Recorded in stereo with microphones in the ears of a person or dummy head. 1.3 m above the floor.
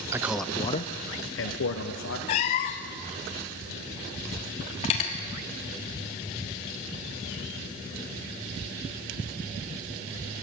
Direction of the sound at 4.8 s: 35° left (ahead or behind).